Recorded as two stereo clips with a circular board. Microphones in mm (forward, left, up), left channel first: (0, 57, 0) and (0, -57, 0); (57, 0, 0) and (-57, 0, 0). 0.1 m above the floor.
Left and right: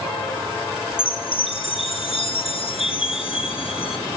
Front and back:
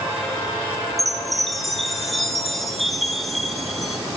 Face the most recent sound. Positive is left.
turn(degrees=90)